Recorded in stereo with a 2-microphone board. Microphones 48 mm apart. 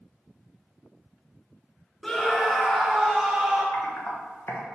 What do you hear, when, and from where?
2.0 s a scream: 15° left (ahead or behind), 1.1 m; by 3.6 s 5° right (ahead or behind), 2.0 m
3.7 s typing on a keyboard: 55° left (ahead or behind), 1.3 m